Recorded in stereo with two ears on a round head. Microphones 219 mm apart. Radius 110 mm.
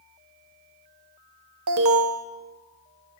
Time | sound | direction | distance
1.7 | an alarm | 55° right (ahead or behind) | 0.6 m